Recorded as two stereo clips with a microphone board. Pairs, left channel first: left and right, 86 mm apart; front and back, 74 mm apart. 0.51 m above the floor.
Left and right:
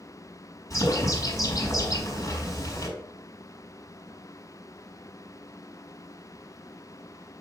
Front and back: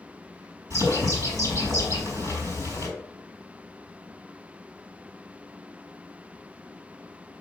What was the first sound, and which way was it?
A bird, 140° left.